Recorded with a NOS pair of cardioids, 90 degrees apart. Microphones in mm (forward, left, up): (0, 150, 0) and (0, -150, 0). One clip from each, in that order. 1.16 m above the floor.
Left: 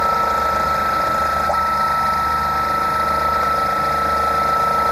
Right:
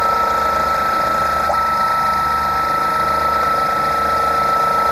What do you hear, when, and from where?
0.0 s a machine running: 15° right